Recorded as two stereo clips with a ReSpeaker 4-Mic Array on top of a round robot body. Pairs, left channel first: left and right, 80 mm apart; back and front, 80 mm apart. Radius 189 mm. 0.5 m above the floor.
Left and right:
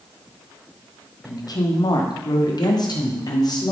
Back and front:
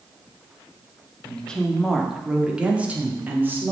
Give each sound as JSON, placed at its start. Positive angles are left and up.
{"t": 1.2, "sound": "a woman speaking", "azimuth_deg": 110, "distance_m": 1.8}